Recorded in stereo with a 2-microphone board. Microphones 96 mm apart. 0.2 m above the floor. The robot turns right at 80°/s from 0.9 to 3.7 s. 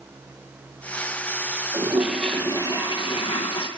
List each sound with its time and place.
1.7 s a toilet flushing: 35° right, 5 m; by 3.7 s 120° left, 5 m